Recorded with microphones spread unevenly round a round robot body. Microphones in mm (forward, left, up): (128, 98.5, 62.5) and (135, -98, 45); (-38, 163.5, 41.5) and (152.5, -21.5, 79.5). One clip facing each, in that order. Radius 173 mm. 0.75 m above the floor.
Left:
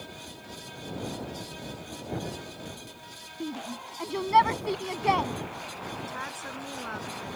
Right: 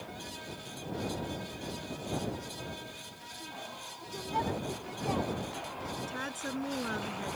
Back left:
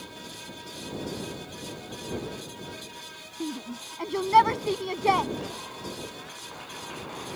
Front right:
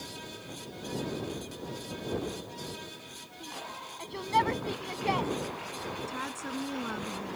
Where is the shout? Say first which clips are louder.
Left 12 dB, back left 13 dB; 115° left.